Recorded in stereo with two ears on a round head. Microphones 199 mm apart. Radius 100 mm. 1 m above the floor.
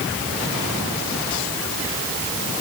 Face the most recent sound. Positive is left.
No sound to turn to.